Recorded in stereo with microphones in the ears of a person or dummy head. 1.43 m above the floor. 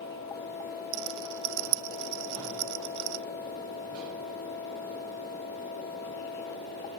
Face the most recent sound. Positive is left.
turn(degrees=-70)  # may be behind; listen again after turning